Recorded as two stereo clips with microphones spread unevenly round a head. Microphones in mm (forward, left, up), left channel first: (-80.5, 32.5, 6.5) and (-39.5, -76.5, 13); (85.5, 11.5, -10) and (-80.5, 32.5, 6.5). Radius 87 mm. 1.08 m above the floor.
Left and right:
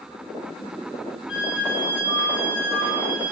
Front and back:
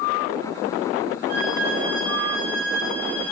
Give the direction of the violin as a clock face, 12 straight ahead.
8 o'clock.